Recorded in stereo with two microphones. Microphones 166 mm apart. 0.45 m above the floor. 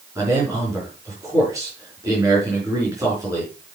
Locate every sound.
0.1 s a man speaking: 20° right (ahead or behind), 5 m